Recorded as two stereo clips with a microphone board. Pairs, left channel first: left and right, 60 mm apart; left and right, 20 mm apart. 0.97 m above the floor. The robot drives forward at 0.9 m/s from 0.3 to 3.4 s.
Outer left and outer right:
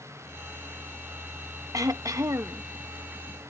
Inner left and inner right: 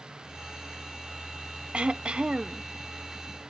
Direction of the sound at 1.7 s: 70° right (ahead or behind).